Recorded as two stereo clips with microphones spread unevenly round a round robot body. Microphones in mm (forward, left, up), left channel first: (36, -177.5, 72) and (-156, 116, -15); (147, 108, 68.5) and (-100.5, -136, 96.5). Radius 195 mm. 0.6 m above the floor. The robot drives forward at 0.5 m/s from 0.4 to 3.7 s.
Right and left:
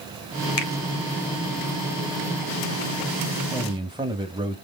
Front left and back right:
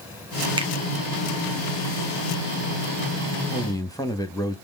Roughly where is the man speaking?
Left.